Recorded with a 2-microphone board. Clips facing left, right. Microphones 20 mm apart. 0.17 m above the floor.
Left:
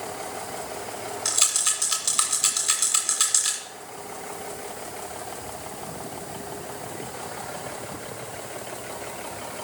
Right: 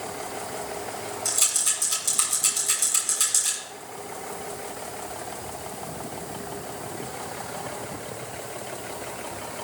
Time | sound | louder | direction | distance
1.2 | a rattle | left 2 dB | 40° left (ahead or behind) | 2.0 m